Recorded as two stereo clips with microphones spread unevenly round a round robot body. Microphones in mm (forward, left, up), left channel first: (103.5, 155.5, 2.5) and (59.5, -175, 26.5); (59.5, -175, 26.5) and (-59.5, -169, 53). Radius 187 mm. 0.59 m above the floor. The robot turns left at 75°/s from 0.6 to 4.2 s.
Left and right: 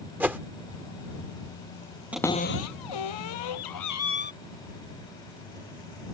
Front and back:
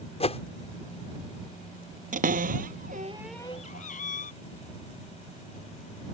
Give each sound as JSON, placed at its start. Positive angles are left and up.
{"t": 0.2, "sound": "a whoosh", "azimuth_deg": -10}
{"t": 2.1, "sound": "a cupboard door", "azimuth_deg": 175}